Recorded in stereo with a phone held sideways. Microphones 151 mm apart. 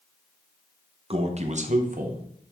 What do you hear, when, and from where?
1.1 s a man speaking: 40° right (ahead or behind), 1.3 m; by 2.2 s 65° right (ahead or behind), 1.3 m